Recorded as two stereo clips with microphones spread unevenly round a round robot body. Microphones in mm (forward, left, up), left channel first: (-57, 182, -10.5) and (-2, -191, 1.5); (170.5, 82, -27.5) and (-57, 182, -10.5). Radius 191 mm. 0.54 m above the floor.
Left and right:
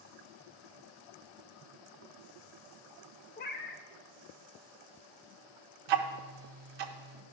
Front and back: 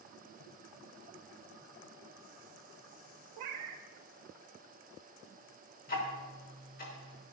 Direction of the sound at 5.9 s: 85° right.